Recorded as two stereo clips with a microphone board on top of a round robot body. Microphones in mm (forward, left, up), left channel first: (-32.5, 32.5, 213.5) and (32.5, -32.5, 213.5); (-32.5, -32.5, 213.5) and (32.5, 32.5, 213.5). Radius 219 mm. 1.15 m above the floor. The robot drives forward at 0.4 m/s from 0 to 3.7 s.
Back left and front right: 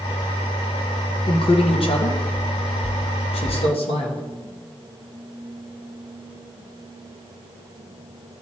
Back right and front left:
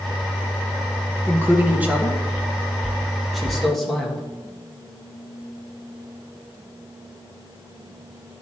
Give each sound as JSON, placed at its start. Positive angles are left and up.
{"t": 1.3, "sound": "a man speaking", "azimuth_deg": 110, "distance_m": 1.4}